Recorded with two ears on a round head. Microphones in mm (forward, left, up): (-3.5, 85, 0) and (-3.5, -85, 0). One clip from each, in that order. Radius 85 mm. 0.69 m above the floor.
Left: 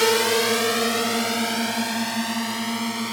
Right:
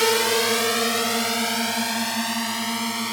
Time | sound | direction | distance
0.0 | a drone | 10° right (ahead or behind) | ?